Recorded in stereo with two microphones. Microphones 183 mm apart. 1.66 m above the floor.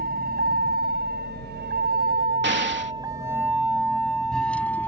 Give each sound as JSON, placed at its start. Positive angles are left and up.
{"t": 0.0, "sound": "a vehicle", "side_deg": -55}
{"t": 2.4, "sound": "an explosion", "side_deg": -80}